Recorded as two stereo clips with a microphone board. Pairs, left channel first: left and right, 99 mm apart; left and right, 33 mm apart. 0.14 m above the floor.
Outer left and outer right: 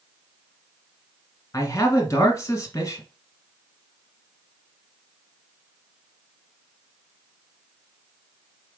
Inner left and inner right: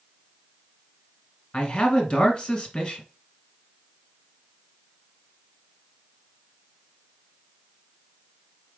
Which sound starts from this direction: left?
A man speaking, at 1.5 s.